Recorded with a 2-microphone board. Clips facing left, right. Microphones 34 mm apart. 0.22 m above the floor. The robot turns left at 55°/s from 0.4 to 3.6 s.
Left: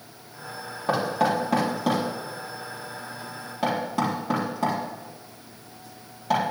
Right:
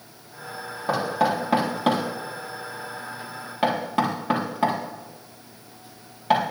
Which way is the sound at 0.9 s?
15° left (ahead or behind).